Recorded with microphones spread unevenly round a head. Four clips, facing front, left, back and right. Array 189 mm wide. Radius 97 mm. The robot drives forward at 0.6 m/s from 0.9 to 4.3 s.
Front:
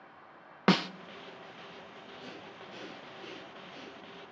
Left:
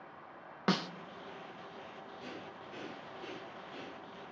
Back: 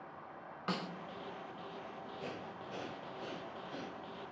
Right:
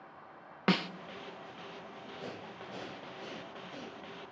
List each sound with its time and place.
0.7 s a snare drum: 5° right, 0.6 m
2.2 s breathing: 115° right, 1.3 m; by 4.2 s 145° right, 2 m